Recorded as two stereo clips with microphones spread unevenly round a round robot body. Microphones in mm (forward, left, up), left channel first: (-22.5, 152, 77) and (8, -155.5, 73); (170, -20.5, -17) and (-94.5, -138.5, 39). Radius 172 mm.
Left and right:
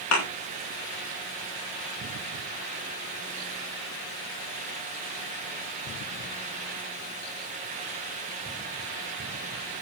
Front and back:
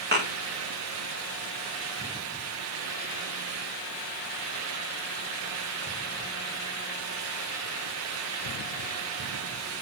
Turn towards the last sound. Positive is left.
turn(degrees=140)